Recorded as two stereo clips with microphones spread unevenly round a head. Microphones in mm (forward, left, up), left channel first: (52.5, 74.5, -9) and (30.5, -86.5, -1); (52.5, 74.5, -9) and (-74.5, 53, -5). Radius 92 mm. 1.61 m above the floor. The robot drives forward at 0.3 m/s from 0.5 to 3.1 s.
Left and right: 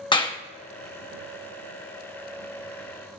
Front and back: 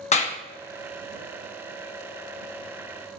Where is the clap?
25° left, 1.0 m.